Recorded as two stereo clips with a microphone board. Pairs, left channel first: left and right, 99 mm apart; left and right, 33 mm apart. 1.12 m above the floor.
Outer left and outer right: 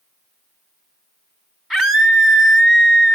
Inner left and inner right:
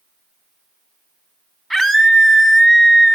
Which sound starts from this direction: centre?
A scream, at 1.7 s.